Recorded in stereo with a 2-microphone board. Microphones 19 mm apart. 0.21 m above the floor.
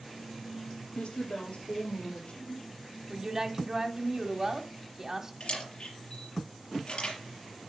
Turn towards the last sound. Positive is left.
turn(degrees=55)  # may be behind; listen again after turning